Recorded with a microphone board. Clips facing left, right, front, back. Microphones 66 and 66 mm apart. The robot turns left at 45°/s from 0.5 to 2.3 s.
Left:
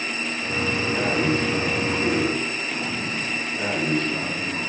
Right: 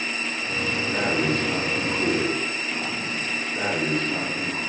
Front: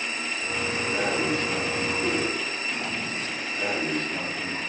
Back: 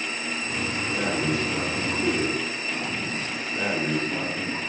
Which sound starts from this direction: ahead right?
Breathing, at 0.9 s.